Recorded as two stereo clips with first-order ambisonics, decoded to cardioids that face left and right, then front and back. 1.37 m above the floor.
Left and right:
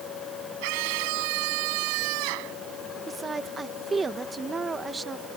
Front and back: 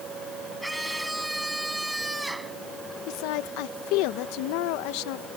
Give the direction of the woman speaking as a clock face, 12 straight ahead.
12 o'clock.